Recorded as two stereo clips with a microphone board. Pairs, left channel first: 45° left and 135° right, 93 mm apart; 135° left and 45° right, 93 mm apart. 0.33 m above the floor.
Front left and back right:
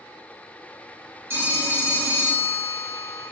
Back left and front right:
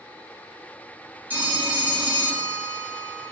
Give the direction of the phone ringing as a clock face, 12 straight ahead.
3 o'clock.